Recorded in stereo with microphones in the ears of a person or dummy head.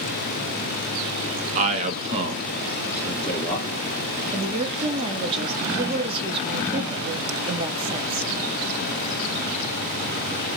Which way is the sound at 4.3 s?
30° right (ahead or behind).